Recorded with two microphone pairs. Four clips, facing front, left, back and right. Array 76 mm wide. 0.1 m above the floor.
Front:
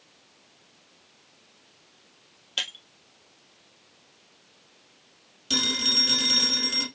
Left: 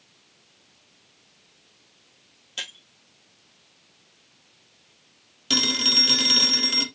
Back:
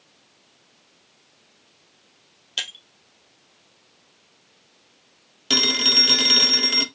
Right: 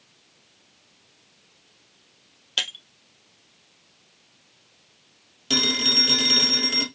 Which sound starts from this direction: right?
Breaking glass, at 2.6 s.